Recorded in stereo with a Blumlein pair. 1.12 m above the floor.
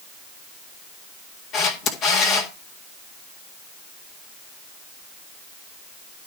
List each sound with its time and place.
1.5 s a camera shutter: 30° left, 1.8 m